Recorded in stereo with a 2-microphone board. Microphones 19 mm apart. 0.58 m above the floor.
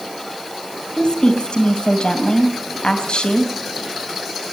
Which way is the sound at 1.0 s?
60° left (ahead or behind).